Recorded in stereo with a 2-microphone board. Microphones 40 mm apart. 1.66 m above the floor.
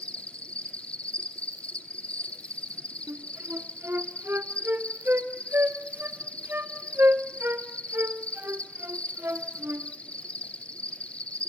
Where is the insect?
35° left (ahead or behind), 0.8 m.